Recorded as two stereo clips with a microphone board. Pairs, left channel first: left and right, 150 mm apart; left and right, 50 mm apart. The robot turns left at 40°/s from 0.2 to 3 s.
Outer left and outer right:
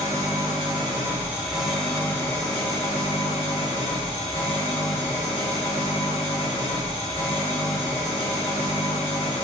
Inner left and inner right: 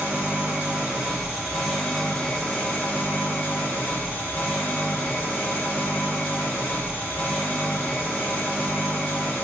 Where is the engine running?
120° right, 1.7 m; by 9.4 s 130° left, 1.7 m.